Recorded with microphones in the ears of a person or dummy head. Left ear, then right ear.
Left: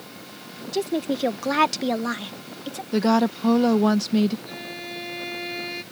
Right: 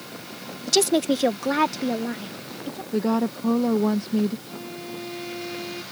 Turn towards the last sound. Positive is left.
turn(degrees=65)  # may be behind; listen again after turning